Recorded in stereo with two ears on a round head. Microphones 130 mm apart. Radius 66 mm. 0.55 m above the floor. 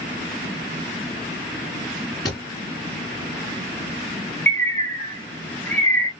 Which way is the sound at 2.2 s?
30° left (ahead or behind).